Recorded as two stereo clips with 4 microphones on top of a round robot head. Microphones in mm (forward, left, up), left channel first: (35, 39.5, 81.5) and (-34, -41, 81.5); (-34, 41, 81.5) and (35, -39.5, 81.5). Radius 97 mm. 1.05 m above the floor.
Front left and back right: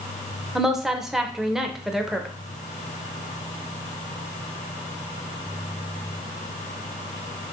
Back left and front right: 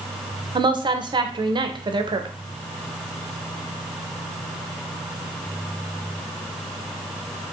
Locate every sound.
0.6 s a woman speaking: 45° right, 0.7 m